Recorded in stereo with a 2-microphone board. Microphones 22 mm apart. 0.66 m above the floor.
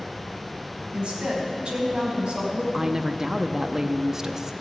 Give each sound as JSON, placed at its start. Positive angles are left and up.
{"t": 0.9, "sound": "a woman speaking", "side_deg": -50, "distance_m": 4.0}
{"t": 2.7, "sound": "a woman speaking", "side_deg": -20, "distance_m": 0.6}